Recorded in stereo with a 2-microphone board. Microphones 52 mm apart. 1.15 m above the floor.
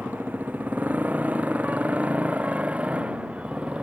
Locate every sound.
0.0 s a motorcycle: 35° right (ahead or behind); by 3.8 s 25° right (ahead or behind)